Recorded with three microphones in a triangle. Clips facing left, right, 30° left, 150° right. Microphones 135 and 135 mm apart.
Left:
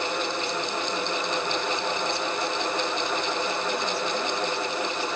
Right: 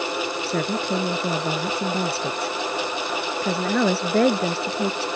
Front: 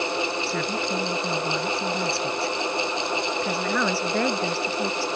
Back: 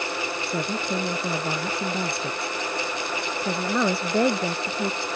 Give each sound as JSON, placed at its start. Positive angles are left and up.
{"t": 0.5, "sound": "a woman speaking", "azimuth_deg": -80}